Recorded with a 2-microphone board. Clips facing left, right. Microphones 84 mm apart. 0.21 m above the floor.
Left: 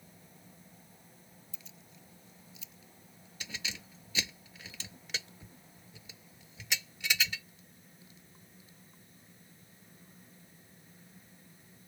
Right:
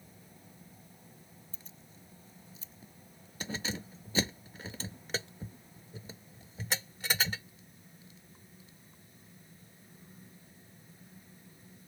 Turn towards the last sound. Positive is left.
turn(degrees=-40)  # may be behind; listen again after turning